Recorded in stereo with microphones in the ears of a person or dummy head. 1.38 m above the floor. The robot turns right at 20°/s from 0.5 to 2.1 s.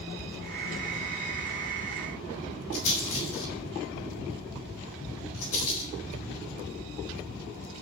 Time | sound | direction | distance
2.7 | a rattle | 80° left | 9 m